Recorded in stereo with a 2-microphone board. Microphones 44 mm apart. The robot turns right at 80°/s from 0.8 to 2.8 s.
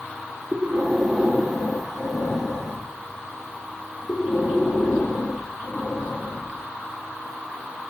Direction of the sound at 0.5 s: 30° right.